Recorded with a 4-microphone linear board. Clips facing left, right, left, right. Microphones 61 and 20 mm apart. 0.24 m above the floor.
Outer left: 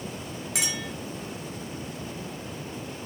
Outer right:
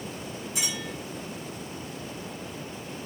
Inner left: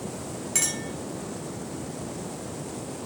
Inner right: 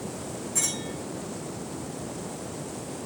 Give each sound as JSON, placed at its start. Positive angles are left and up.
{"t": 0.6, "sound": "a clink", "side_deg": 75, "distance_m": 2.5}